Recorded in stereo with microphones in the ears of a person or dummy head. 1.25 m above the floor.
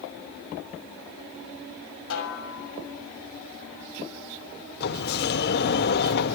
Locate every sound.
2.1 s a snare drum: 75° left (ahead or behind), 6 m
4.8 s a sliding door: 55° left (ahead or behind), 2.0 m